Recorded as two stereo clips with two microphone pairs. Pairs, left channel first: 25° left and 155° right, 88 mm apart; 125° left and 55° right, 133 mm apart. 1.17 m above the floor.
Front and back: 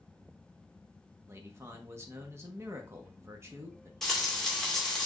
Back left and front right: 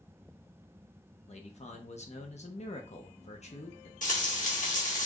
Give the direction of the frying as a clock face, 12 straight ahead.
8 o'clock.